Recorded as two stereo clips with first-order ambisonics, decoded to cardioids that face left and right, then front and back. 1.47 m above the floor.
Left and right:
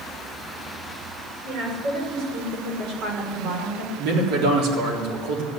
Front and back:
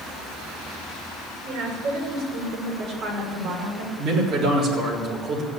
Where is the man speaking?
120° right, 4 m.